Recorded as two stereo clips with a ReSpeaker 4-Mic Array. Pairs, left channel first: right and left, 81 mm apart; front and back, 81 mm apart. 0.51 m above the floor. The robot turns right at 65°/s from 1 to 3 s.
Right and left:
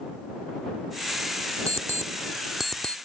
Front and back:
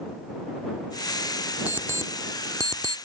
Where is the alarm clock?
115° left; by 3.0 s 165° right.